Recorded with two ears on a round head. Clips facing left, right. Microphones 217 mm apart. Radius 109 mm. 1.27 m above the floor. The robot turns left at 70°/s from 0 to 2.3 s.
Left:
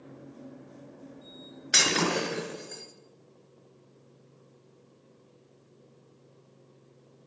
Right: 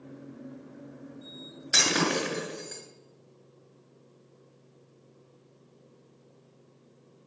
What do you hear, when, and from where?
1.7 s breaking glass: centre (ahead or behind), 4.5 m; by 2.8 s 40° right (ahead or behind), 4.5 m